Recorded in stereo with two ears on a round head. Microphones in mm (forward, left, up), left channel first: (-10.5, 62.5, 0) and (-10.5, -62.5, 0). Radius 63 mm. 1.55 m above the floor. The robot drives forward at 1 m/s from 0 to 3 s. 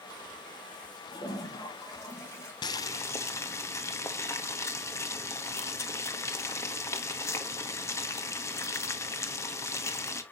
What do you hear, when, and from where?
1.1 s a toilet flushing: 30° left (ahead or behind), 2.5 m; by 2.5 s 20° left (ahead or behind), 3.5 m
2.6 s boiling: 30° left (ahead or behind), 0.7 m; by 10.2 s 20° left (ahead or behind), 1.0 m